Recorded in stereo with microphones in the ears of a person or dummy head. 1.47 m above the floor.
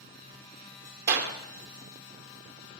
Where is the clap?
60° right (ahead or behind), 1.0 m.